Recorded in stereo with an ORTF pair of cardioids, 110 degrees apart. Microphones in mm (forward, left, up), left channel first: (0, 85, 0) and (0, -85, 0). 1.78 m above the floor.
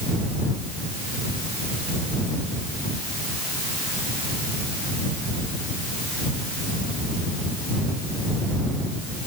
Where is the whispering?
I don't hear whispering.